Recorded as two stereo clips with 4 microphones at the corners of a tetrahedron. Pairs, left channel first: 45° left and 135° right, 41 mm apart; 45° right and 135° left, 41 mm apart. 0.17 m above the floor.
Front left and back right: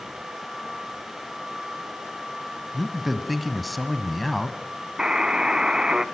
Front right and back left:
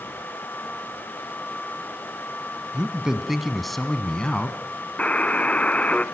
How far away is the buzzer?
About 0.8 m.